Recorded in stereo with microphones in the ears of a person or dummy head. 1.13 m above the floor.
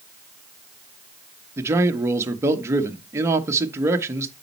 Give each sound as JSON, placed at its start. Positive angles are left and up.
{"t": 1.6, "sound": "a man speaking", "side_deg": -10, "distance_m": 1.0}